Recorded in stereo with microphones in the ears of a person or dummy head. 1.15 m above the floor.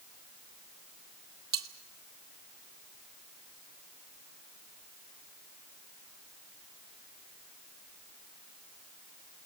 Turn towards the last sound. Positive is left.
turn(degrees=-20)  # may be behind; listen again after turning